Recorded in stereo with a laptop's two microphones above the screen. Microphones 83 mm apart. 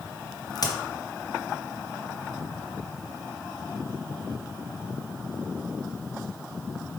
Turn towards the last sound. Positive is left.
turn(degrees=50)  # may be behind; listen again after turning